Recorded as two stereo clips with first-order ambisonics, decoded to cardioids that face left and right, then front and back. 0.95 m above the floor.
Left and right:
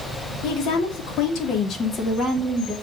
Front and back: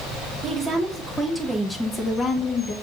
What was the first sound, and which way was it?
A woman speaking, 110° left.